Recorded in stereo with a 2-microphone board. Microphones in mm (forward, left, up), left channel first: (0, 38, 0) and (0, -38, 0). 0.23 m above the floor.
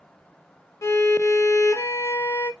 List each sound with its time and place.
0.8 s a violin: 40° left (ahead or behind), 0.5 m